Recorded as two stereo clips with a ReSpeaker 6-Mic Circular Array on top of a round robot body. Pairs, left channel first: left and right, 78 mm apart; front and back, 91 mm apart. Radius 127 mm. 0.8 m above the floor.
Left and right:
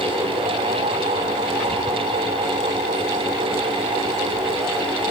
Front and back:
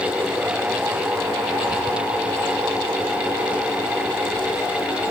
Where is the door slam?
No door slam in this recording.